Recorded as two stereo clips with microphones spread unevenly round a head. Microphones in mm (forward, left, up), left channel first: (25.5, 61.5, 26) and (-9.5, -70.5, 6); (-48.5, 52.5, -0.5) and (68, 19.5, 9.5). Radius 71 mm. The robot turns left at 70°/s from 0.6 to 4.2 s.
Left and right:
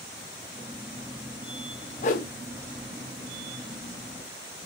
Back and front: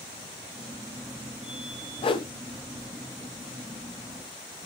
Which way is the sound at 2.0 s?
120° left.